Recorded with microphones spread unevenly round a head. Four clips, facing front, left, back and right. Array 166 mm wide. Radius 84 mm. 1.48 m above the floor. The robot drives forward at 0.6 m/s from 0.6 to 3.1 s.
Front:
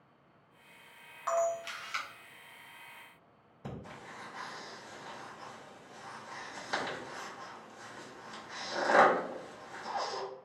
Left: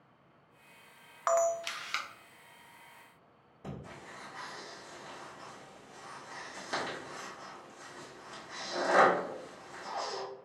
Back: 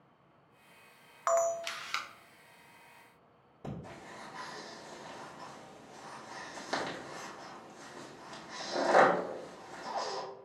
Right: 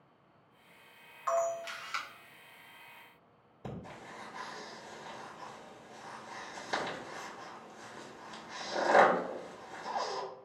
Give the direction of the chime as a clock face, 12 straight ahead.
I don't hear a chime.